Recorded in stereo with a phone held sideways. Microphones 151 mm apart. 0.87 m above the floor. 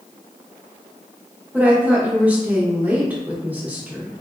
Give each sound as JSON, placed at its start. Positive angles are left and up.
{"t": 1.5, "sound": "a woman speaking", "side_deg": -10, "distance_m": 0.9}